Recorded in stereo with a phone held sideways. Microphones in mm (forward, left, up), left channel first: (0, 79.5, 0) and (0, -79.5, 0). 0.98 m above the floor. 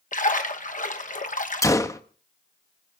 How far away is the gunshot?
About 0.8 m.